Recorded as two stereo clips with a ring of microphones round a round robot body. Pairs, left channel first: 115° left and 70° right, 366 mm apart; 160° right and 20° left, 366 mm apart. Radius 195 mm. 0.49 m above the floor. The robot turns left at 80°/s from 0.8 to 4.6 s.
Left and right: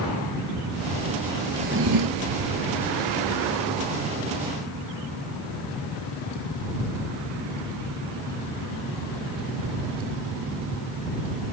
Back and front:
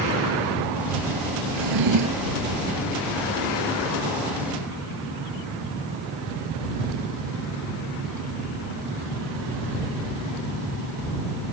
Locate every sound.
1.5 s a drawer: 10° left; by 2.4 s 60° right